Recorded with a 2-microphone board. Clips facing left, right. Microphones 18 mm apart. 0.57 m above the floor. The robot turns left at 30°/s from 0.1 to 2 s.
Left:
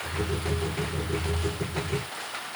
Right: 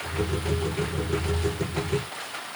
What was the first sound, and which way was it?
Only background noise.